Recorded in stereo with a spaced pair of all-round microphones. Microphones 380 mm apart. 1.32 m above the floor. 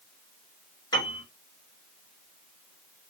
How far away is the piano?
About 3 m.